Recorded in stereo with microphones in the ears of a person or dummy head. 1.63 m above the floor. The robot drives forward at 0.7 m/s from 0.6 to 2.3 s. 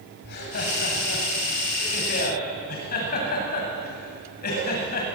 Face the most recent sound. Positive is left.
turn(degrees=50)  # may be behind; listen again after turning